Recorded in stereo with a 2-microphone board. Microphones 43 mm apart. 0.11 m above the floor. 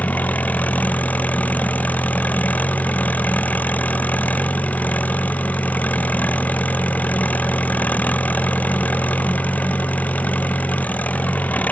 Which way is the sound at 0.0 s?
35° left (ahead or behind).